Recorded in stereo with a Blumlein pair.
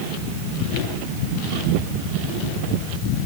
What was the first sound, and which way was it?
Only background noise.